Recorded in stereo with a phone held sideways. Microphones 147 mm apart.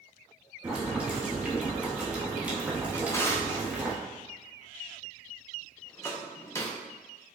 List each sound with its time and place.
0.6 s boiling: 10° right (ahead or behind), 0.9 m
2.9 s a drawer: 20° left (ahead or behind), 0.6 m